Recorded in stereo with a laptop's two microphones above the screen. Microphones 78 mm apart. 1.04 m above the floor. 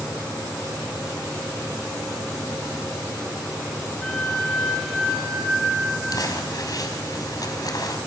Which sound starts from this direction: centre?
A flute, at 4.0 s.